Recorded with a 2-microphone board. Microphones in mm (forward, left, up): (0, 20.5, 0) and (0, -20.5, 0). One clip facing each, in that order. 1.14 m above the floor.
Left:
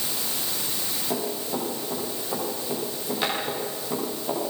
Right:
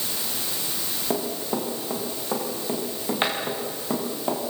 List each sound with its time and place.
1.1 s running footsteps: 30° right (ahead or behind), 9.5 m; by 4.4 s 45° right (ahead or behind), 10 m